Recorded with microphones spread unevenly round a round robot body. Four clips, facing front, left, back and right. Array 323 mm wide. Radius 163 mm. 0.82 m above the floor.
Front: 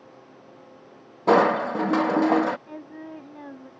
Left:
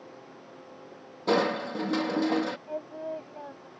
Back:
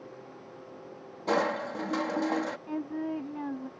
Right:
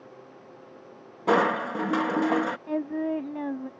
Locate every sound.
1.3 s crushing: 10° right
2.7 s singing: 100° right